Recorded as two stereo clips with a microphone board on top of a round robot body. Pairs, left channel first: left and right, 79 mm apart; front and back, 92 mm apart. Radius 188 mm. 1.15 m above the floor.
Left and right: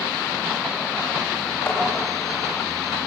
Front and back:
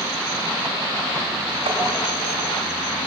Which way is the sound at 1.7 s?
155° left.